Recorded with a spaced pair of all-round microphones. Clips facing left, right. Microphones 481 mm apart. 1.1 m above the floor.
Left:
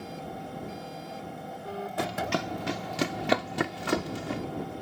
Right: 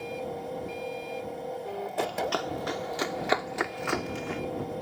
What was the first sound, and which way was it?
A machine running, 30° left (ahead or behind).